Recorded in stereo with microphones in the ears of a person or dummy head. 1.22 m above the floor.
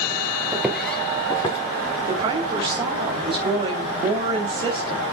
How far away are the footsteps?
About 1.5 m.